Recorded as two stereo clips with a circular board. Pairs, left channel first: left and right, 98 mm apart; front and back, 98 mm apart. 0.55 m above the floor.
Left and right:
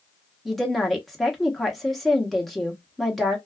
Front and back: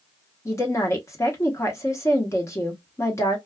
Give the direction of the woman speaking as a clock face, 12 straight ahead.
12 o'clock.